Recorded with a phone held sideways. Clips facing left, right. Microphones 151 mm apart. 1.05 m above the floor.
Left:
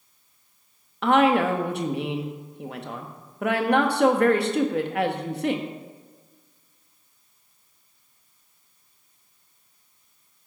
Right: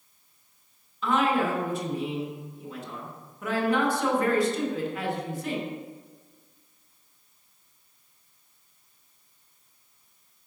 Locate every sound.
1.0 s a woman speaking: 70° left (ahead or behind), 1.2 m